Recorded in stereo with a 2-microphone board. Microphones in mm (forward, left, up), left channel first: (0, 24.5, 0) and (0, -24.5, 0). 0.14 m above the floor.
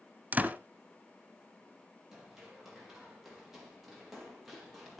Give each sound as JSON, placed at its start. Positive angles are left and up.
{"t": 0.3, "sound": "a door slam", "side_deg": -35, "distance_m": 1.1}
{"t": 2.1, "sound": "running footsteps", "side_deg": -5, "distance_m": 5.5}